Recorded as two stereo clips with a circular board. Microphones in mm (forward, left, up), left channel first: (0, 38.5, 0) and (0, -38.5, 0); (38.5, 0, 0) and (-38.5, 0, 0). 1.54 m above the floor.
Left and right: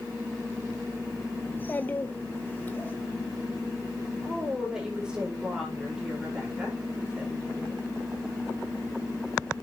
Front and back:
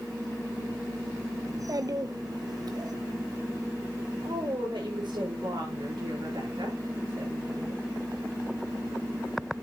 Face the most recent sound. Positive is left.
turn(degrees=-170)